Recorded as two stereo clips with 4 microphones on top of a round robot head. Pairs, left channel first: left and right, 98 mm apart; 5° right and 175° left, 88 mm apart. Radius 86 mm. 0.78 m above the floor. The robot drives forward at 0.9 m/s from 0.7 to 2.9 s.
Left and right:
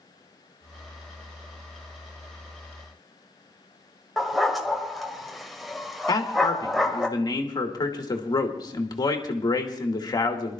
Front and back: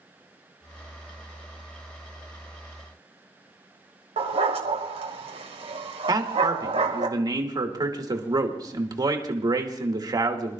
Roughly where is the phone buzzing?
No phone buzzing in this recording.